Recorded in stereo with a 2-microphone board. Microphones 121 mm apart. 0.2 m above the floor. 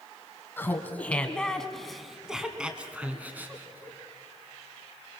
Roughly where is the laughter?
Centre.